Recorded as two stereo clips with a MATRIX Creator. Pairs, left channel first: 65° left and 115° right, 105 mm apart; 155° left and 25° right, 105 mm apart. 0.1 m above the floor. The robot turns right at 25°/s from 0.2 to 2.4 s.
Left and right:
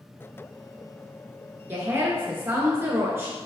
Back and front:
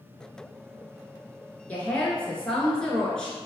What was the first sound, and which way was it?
A woman speaking, 150° right.